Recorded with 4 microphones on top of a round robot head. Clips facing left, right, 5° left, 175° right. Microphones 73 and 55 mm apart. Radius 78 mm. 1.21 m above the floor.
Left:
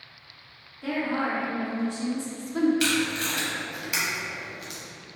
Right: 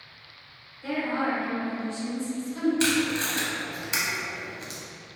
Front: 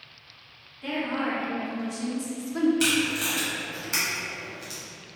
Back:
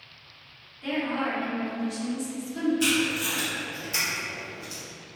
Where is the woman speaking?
90° left, 1.3 m; by 2.7 s 45° left, 0.6 m.